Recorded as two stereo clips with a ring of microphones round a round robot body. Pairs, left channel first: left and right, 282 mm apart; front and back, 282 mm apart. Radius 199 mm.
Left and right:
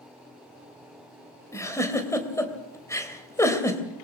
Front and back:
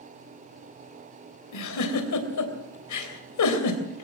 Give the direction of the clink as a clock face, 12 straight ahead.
No clink in this recording.